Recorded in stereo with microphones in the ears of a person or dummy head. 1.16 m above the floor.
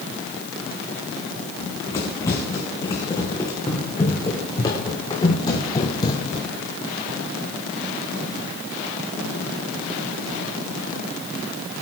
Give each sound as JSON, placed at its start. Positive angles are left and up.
{"t": 1.6, "sound": "running footsteps", "side_deg": 15, "distance_m": 5.0}